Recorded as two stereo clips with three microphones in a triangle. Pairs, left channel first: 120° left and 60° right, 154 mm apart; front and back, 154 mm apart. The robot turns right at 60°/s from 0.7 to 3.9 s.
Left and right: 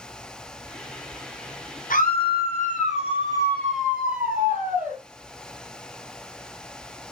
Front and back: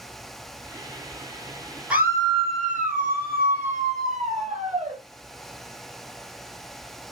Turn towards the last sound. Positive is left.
turn(degrees=-140)